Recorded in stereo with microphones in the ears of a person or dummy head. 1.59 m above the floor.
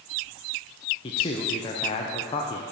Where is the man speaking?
25° left (ahead or behind), 0.5 m.